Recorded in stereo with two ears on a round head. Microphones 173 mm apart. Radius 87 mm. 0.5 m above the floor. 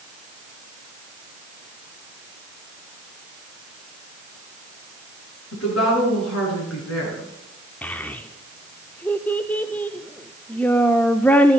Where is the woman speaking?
80° left, 7 m.